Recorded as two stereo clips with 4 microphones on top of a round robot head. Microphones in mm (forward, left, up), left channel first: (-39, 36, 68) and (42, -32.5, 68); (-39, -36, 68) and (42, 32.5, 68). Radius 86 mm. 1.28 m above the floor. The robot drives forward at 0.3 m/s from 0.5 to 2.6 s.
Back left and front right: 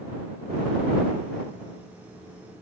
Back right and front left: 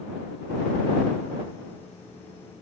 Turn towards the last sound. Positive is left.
No sound to turn to.